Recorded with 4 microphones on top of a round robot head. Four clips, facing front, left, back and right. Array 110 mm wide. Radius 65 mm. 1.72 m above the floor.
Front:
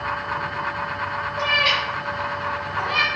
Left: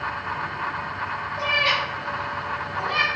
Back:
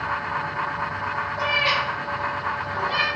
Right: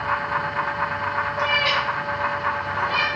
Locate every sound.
1.4 s a cat meowing: 25° right, 1.0 m; by 3.1 s 40° left, 1.5 m